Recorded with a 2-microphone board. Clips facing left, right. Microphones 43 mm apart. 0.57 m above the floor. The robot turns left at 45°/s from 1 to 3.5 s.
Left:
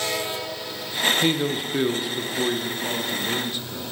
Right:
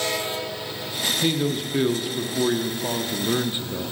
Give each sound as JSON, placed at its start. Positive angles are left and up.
{"t": 1.2, "sound": "a man speaking", "side_deg": 15, "distance_m": 0.6}